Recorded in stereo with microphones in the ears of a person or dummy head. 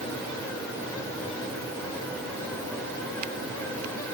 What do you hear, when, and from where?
Only background noise.